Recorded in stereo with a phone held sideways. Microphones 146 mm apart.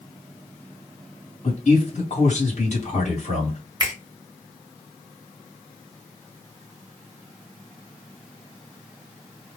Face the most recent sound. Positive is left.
turn(degrees=-30)  # may be behind; listen again after turning